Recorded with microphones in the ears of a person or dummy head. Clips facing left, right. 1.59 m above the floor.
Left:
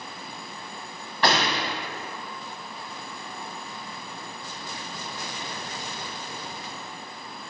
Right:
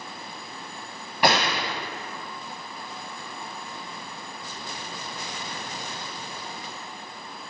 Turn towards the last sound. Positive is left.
turn(degrees=-15)  # may be behind; listen again after turning